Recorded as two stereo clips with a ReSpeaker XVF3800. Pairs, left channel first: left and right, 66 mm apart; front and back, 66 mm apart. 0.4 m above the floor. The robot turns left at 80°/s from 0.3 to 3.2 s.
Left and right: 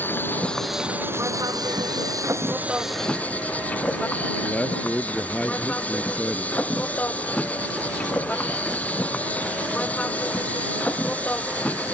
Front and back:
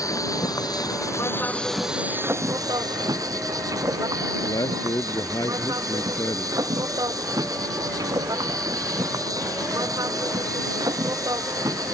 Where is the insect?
30° left; by 11.9 s 155° left.